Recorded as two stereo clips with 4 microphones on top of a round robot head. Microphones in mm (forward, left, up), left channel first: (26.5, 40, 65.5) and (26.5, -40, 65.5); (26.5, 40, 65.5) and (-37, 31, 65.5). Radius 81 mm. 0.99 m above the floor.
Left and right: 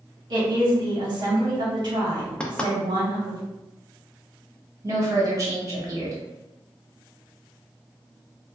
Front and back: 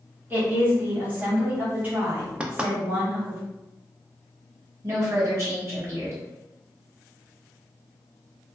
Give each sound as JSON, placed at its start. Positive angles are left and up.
{"t": 0.3, "sound": "a woman speaking", "azimuth_deg": -110, "distance_m": 1.2}
{"t": 2.4, "sound": "knocking", "azimuth_deg": 150, "distance_m": 0.5}
{"t": 4.8, "sound": "a woman speaking", "azimuth_deg": -130, "distance_m": 1.4}